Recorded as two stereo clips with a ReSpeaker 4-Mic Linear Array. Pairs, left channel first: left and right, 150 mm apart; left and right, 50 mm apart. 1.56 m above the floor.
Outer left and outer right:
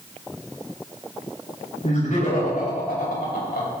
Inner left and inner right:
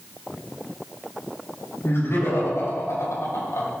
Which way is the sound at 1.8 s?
55° left (ahead or behind).